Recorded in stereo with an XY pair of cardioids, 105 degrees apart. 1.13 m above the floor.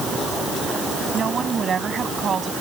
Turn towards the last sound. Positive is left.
turn(degrees=-40)